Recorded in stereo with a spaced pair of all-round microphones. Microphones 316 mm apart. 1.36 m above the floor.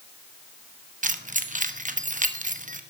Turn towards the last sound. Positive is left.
turn(degrees=-25)  # may be behind; listen again after turning